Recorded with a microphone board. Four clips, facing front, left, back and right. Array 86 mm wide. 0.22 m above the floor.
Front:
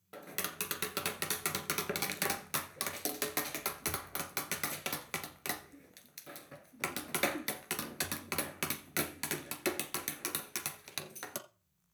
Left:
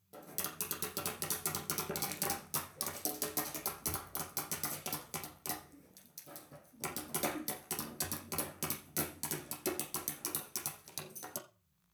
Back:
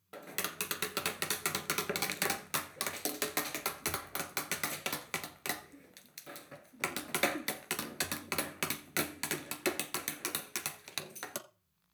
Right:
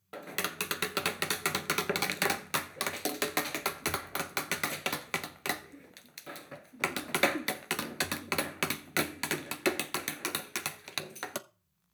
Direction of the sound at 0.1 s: 95° right.